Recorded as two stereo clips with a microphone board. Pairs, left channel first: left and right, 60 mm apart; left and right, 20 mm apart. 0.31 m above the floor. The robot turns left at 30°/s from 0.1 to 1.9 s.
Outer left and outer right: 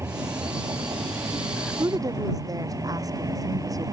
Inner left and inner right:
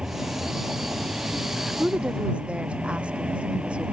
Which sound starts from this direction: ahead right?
A vehicle, at 0.0 s.